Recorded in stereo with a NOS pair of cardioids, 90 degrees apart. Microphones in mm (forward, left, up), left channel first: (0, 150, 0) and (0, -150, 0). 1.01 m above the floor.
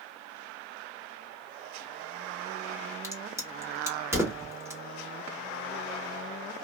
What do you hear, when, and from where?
3.0 s a crack: 10° right, 1.2 m